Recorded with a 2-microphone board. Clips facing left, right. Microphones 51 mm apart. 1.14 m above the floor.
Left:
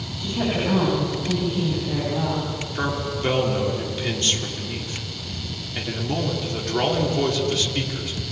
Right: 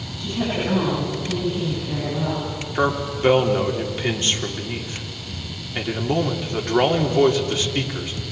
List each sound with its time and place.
0.2 s a woman speaking: 20° left (ahead or behind), 9 m; by 2.5 s 35° left (ahead or behind), 10.5 m
2.8 s a man speaking: 25° right (ahead or behind), 3 m